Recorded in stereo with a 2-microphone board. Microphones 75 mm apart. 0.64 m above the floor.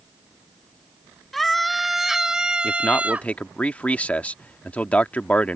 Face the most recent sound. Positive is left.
turn(degrees=20)  # may be behind; listen again after turning